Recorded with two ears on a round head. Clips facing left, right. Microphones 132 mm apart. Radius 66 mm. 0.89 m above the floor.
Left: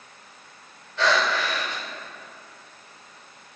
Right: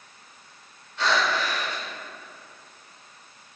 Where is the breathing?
60° left (ahead or behind), 3.5 m.